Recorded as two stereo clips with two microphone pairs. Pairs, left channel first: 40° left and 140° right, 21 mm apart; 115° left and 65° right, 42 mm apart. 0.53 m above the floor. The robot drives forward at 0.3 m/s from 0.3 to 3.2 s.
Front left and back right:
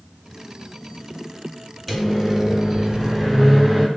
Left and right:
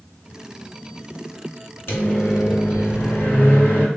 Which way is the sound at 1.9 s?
115° left.